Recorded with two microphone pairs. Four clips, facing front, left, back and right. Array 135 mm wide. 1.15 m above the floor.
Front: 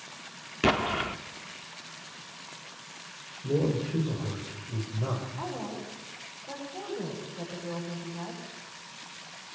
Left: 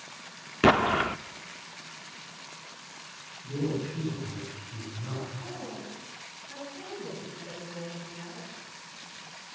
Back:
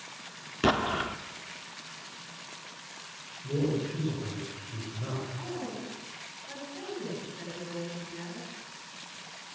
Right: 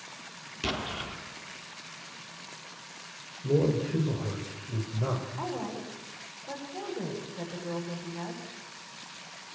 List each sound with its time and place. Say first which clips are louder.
0.6 s an explosion: left 13 dB, even; 85° left, 1.0 m
3.4 s a man speaking: right 5 dB, front 2 dB; 65° right, 4.5 m
5.4 s a woman speaking: right 5 dB, front 1 dB; 60° right, 9.5 m